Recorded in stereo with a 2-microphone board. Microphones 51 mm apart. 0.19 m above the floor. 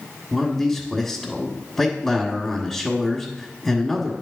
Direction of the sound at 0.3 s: 5° left (ahead or behind).